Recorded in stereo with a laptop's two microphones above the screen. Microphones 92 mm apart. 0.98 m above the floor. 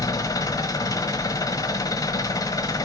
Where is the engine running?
40° left (ahead or behind), 1.3 m.